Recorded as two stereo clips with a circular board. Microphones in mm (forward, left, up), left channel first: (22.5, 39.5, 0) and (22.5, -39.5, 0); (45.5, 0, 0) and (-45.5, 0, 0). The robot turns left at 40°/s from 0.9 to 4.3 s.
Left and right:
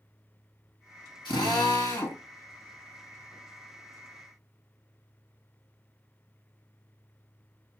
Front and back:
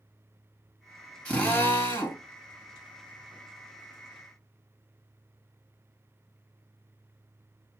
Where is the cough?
No cough in this recording.